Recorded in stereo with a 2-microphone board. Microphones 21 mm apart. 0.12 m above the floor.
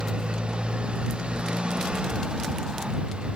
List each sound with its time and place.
0.0 s a motorcycle: 50° right (ahead or behind)